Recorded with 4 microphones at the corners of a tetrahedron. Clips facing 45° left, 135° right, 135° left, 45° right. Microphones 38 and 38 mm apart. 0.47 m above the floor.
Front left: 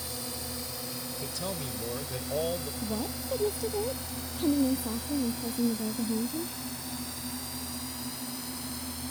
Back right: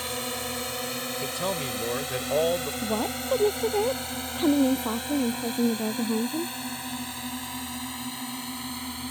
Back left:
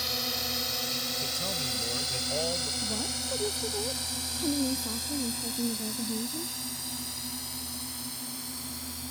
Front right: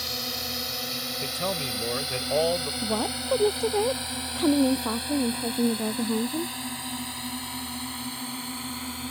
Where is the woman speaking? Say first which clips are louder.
Back right 6 dB, front right 6 dB; 90° right.